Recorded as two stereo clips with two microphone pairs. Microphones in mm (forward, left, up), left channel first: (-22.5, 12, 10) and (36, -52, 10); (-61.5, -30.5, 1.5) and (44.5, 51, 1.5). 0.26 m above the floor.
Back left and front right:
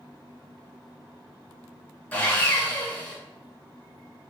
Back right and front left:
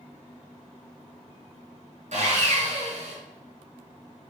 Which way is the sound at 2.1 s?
60° left.